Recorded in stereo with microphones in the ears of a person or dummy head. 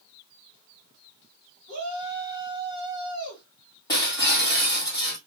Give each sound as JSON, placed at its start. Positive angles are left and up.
{"t": 1.7, "sound": "a shout", "side_deg": 30, "distance_m": 2.5}
{"t": 3.9, "sound": "breaking glass", "side_deg": 20, "distance_m": 1.4}